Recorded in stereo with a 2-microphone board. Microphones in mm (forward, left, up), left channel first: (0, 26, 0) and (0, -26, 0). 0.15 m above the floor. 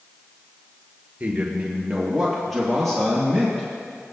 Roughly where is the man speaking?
Right.